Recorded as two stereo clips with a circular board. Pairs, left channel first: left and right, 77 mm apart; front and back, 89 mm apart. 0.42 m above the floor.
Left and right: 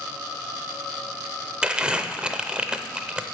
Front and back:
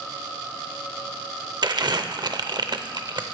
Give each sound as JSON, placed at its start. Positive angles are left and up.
{"t": 1.6, "sound": "crumpling", "azimuth_deg": -165, "distance_m": 0.6}